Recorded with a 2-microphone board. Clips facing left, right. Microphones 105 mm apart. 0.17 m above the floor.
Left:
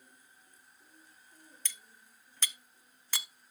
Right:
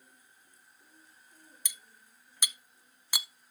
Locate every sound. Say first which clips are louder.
1.6 s cutlery clinking: left 1 dB; 15° right (ahead or behind), 0.6 m